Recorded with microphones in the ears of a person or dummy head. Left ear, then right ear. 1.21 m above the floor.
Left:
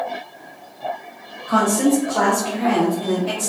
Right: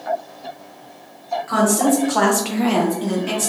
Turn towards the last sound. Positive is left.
turn(degrees=-10)  # may be behind; listen again after turning